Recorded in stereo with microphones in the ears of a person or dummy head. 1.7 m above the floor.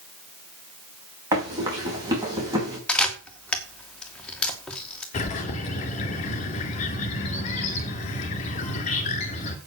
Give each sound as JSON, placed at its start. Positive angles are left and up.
{"t": 1.3, "sound": "running footsteps", "side_deg": -20, "distance_m": 5.0}
{"t": 2.9, "sound": "a camera shutter", "side_deg": 5, "distance_m": 2.0}
{"t": 5.1, "sound": "a bird", "side_deg": 40, "distance_m": 2.0}